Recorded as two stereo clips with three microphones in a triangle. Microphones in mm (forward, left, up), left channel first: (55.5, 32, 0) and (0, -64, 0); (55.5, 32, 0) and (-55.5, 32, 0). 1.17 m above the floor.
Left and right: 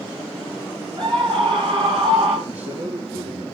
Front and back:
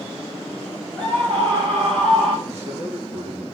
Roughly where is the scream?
Right.